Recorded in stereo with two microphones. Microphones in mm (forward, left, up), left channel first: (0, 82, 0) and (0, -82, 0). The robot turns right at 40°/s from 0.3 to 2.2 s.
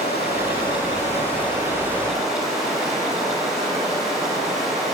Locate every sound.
0.0 s running water: 105° left, 2.5 m; by 5.0 s straight behind, 2.5 m